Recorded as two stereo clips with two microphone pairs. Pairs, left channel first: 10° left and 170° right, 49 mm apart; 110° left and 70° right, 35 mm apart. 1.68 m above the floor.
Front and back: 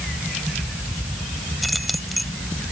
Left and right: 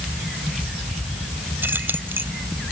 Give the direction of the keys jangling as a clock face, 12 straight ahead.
3 o'clock.